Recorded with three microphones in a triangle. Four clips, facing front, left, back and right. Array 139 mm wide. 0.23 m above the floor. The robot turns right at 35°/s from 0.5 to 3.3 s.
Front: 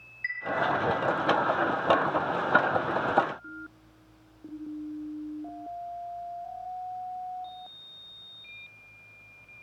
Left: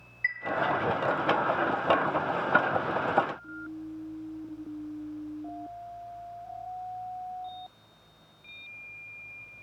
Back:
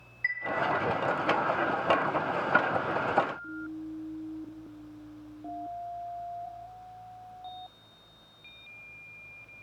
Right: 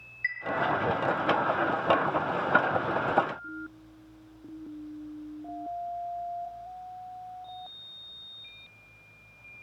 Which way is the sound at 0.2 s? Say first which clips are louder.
Left 1 dB, back 2 dB; 150° left.